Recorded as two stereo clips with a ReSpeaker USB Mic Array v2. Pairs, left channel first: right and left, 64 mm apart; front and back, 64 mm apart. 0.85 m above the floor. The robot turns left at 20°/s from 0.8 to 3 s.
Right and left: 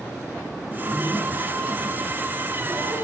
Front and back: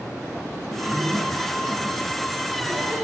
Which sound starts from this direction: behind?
A zipper, at 0.6 s.